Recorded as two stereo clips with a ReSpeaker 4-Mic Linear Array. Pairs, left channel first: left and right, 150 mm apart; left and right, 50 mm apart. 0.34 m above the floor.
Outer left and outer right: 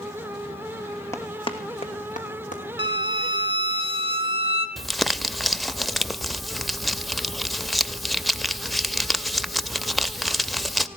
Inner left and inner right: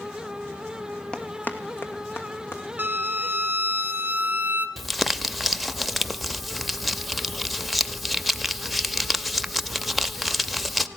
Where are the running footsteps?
20° left (ahead or behind), 1.1 m; by 2.6 s 55° left (ahead or behind), 3 m.